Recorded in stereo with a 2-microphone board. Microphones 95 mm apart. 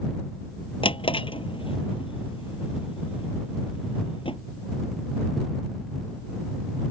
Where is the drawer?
70° left (ahead or behind).